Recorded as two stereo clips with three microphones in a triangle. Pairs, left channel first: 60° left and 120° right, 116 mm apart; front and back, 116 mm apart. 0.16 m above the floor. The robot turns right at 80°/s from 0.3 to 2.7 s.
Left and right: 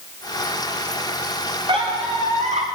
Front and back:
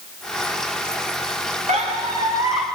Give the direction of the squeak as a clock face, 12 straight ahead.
6 o'clock.